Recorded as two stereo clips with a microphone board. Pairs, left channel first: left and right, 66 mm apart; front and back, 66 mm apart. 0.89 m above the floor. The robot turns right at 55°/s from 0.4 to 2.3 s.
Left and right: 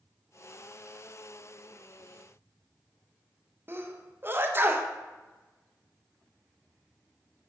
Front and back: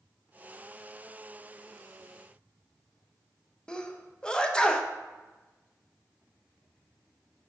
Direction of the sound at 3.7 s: 70° right.